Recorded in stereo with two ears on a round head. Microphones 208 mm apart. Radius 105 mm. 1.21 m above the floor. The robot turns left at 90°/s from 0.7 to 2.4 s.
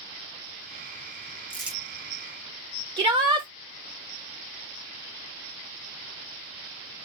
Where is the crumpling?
10° left (ahead or behind), 1.5 m; by 1.8 s 20° right (ahead or behind), 1.5 m.